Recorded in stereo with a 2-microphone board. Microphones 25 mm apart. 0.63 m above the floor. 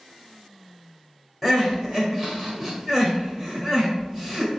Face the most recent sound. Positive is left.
turn(degrees=-15)  # may be behind; listen again after turning